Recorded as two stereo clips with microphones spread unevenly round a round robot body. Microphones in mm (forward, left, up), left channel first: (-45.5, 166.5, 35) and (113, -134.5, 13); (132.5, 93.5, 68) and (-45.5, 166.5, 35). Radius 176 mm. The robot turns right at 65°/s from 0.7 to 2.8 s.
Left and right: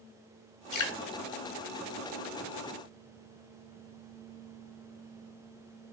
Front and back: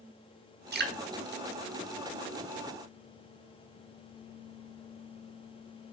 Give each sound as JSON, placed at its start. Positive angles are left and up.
{"t": 0.7, "sound": "dripping", "azimuth_deg": 150, "distance_m": 1.9}